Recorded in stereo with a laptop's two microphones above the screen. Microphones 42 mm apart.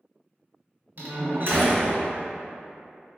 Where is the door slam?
55° right (ahead or behind), 1.7 m.